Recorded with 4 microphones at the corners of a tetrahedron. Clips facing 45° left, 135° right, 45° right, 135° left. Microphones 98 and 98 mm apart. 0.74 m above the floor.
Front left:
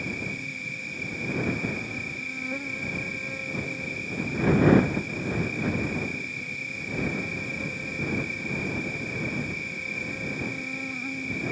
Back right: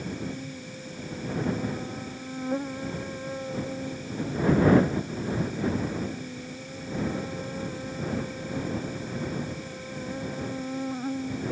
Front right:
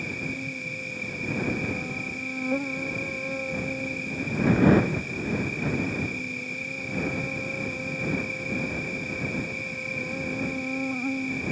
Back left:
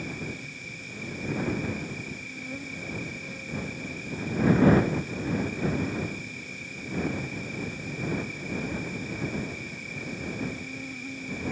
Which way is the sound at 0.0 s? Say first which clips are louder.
Back right 1 dB, front right 3 dB; 75° right.